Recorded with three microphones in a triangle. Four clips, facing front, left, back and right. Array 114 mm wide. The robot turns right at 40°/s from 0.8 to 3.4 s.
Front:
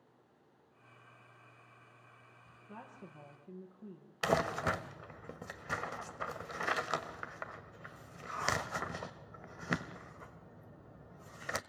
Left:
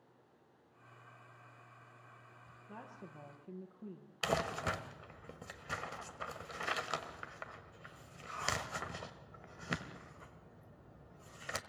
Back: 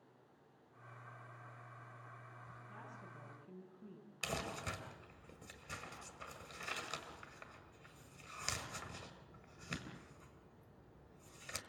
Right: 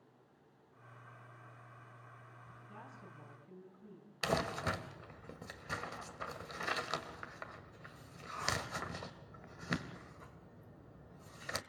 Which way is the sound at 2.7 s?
45° left.